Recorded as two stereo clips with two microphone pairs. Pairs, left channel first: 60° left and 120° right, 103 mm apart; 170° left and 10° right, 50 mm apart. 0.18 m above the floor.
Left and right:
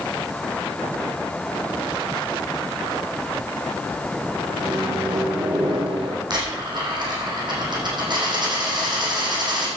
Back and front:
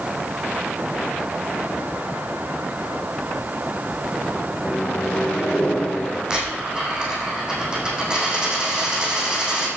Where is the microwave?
135° right, 6.5 m.